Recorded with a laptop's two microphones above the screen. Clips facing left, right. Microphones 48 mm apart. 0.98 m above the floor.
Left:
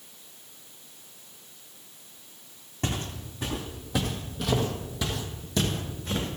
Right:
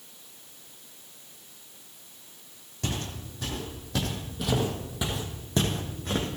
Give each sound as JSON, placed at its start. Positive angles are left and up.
{"t": 2.8, "sound": "footsteps", "side_deg": 35, "distance_m": 2.0}